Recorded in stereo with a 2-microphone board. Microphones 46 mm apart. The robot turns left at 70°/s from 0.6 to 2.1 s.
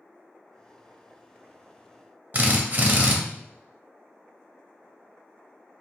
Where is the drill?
40° right (ahead or behind), 0.6 m.